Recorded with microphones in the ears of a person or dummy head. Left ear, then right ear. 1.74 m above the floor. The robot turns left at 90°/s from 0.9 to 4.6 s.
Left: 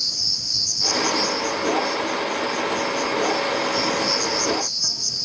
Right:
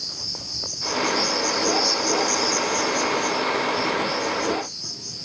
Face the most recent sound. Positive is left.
turn(degrees=60)